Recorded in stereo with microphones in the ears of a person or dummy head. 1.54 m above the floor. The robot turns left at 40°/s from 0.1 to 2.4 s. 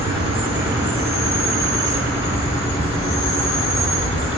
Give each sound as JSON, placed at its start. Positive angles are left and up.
{"t": 0.0, "sound": "an insect", "side_deg": -25, "distance_m": 1.4}